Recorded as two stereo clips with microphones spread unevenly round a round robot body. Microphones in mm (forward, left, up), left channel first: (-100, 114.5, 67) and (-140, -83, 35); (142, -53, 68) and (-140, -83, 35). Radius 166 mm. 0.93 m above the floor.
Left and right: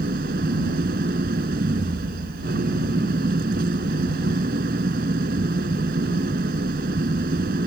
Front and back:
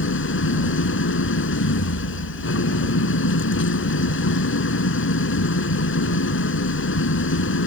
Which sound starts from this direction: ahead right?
An engine running, at 0.0 s.